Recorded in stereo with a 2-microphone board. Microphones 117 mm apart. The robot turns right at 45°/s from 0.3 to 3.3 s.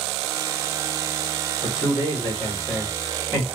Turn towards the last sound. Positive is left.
turn(degrees=-155)